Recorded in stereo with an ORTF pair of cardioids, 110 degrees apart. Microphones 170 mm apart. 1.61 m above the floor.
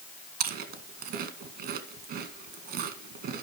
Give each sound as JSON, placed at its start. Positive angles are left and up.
{"t": 0.4, "sound": "chewing", "azimuth_deg": -70, "distance_m": 2.0}